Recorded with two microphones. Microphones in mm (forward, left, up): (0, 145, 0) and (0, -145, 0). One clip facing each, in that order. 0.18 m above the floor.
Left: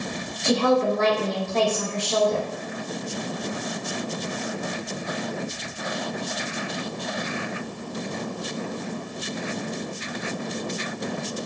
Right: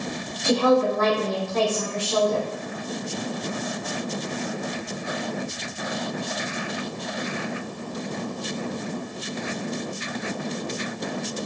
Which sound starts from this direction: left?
A woman speaking, at 0.4 s.